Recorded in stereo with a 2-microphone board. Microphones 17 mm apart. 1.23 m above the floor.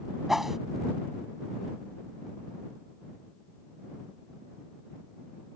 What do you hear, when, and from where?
0.3 s a whoosh: 15° right (ahead or behind)